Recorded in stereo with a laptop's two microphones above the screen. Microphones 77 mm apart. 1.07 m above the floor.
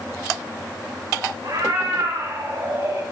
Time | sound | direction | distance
1.4 | a cat meowing | 75° right (ahead or behind) | 2.5 m